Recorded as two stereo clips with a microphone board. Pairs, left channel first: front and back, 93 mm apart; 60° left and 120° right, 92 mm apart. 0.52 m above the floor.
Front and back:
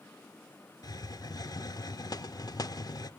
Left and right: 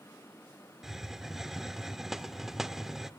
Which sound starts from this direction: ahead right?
A hiss, at 0.8 s.